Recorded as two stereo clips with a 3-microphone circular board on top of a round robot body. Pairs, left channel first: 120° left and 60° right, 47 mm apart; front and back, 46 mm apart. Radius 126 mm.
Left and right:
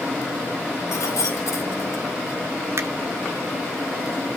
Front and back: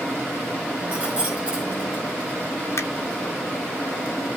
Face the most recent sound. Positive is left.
turn(degrees=-25)